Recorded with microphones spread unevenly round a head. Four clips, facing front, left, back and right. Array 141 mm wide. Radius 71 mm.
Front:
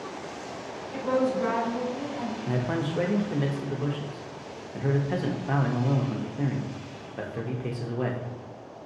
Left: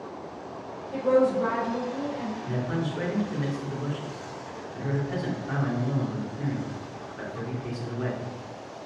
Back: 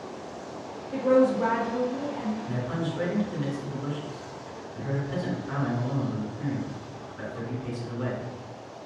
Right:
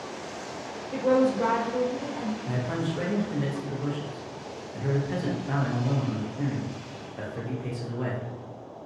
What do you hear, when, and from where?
0.9 s a woman speaking: 135° right, 1.3 m
2.5 s a man speaking: 10° right, 0.7 m